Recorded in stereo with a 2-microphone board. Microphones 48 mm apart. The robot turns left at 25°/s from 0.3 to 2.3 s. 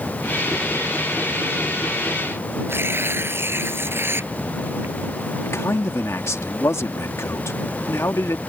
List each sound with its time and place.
2.7 s tearing paper: 55° right (ahead or behind)
5.4 s a man speaking: 75° left (ahead or behind)